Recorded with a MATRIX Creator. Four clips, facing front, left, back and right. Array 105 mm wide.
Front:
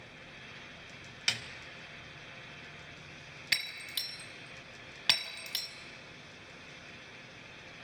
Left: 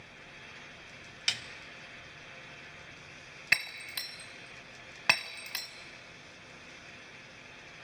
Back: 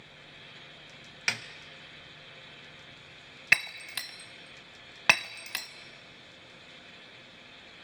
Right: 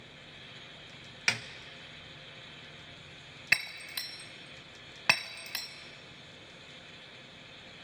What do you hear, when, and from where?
1.3 s a snare drum: 130° right, 0.7 m
3.5 s breaking glass: straight behind, 0.8 m